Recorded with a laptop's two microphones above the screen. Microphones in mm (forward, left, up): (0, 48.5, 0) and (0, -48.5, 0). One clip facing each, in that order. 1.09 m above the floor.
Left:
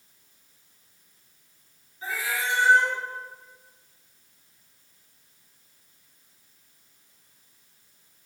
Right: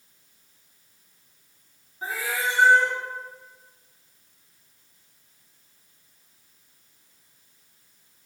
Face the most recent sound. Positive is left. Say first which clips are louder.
# right 2 dB
turn(degrees=-45)  # may be behind; listen again after turning